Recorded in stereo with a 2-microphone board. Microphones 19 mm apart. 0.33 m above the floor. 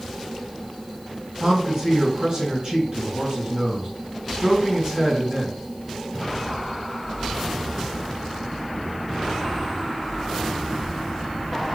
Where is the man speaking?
35° right (ahead or behind), 2.5 m.